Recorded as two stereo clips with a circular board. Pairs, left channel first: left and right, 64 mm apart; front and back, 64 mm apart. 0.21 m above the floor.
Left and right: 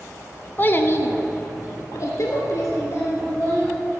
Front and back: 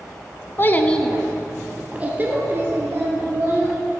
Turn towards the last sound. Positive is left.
turn(degrees=135)